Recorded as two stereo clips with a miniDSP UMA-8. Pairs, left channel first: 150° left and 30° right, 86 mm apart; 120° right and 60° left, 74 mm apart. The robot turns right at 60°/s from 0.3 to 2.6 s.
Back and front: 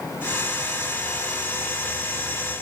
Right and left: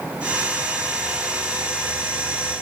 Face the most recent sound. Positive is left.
No sound to turn to.